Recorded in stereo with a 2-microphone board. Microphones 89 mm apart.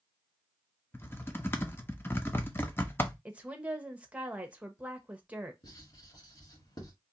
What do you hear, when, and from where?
0.9 s typing on a keyboard: 25° left (ahead or behind), 0.6 m
3.2 s a woman speaking: 15° right (ahead or behind), 0.8 m
5.6 s writing: 55° left (ahead or behind), 1.9 m